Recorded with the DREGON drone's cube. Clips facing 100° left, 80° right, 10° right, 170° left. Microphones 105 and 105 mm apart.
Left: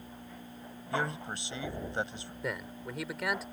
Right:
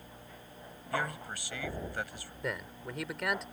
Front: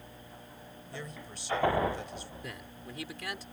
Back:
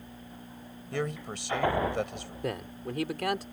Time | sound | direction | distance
0.9 | a man speaking | 165° left | ?
2.4 | a man speaking | 170° right | ?